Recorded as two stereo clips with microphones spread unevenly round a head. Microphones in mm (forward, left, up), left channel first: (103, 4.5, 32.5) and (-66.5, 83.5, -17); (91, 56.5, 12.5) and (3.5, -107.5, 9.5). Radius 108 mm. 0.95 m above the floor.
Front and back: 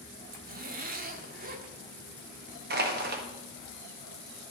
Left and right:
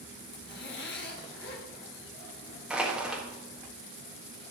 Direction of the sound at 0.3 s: 110° left.